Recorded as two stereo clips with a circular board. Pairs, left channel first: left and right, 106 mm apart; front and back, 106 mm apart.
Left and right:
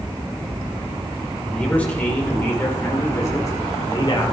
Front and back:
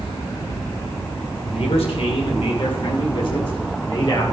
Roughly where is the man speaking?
Ahead.